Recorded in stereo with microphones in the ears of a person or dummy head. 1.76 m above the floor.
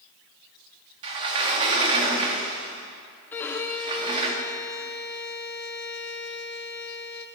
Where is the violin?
10° left (ahead or behind), 0.8 m.